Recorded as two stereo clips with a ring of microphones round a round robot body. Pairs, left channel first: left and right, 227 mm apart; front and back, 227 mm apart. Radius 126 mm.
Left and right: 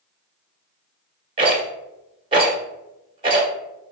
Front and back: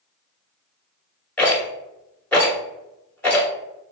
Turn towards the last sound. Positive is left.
turn(degrees=-75)